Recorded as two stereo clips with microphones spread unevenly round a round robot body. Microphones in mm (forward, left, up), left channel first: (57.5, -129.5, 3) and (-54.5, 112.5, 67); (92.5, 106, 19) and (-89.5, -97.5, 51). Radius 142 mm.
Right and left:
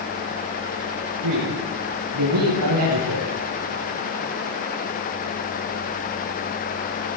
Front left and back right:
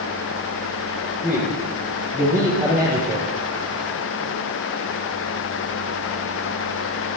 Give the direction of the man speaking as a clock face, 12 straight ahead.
7 o'clock.